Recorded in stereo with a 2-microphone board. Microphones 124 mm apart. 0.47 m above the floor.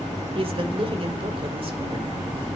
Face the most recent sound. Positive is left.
turn(degrees=-50)  # may be behind; listen again after turning